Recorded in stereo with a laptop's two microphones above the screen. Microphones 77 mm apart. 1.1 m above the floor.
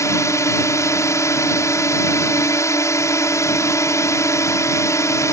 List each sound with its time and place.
0.0 s a drone: 45° left (ahead or behind)